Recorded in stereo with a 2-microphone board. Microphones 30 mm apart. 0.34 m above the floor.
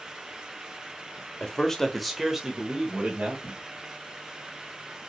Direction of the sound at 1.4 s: 25° left (ahead or behind).